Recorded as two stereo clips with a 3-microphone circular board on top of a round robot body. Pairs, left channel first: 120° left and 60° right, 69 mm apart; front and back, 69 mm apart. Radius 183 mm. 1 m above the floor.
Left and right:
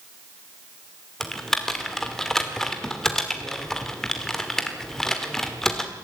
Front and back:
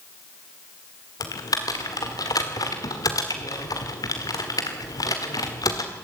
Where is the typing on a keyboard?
35° left, 1.5 m.